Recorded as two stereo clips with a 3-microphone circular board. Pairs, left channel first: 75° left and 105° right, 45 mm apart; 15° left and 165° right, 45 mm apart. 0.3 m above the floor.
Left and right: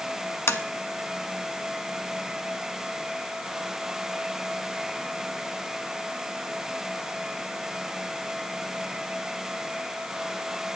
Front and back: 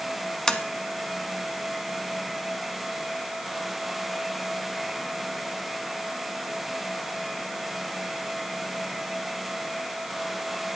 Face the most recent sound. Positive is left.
turn(degrees=95)